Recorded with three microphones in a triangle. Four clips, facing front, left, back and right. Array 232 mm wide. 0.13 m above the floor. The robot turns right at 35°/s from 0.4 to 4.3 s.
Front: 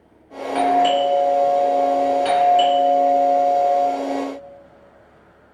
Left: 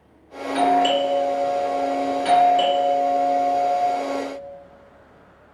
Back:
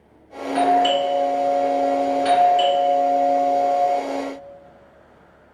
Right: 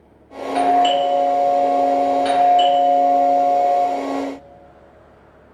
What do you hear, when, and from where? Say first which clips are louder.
0.6 s a doorbell: right 3 dB, front 1 dB; 10° right, 1.9 m; by 3.8 s 100° left, 1.9 m